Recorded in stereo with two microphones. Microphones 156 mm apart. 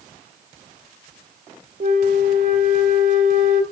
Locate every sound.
1.8 s a flute: 60° right (ahead or behind), 1.0 m